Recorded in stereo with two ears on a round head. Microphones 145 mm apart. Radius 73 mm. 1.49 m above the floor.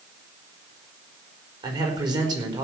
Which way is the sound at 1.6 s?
25° right (ahead or behind).